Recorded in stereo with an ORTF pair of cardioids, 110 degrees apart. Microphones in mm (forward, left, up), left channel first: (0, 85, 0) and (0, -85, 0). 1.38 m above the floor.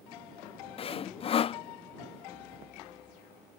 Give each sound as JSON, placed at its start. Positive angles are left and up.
{"t": 0.8, "sound": "sawing", "azimuth_deg": 35}